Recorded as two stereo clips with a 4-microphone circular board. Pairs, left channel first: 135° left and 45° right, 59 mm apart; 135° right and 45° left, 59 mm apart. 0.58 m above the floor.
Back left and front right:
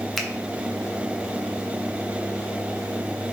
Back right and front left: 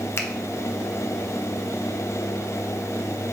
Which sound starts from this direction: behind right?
A finger snap, at 0.2 s.